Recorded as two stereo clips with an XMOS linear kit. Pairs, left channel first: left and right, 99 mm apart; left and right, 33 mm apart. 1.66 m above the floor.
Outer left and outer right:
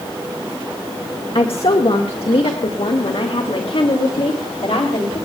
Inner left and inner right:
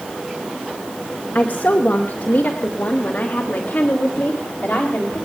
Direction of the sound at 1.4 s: 75° left (ahead or behind).